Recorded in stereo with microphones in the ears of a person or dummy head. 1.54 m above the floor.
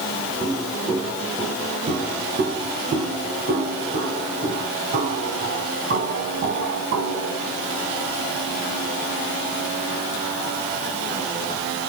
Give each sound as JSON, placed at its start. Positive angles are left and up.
{"t": 0.4, "sound": "footsteps", "side_deg": -25, "distance_m": 5.0}